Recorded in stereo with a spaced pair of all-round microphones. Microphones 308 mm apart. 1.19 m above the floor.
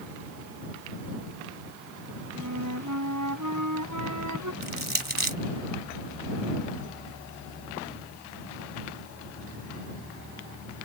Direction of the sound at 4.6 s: 30° right (ahead or behind).